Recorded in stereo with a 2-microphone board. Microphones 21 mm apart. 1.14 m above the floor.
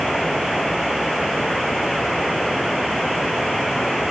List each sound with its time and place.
Only background noise.